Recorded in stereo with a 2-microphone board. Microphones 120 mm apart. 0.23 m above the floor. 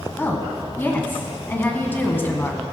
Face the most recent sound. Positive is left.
turn(degrees=20)  # may be behind; listen again after turning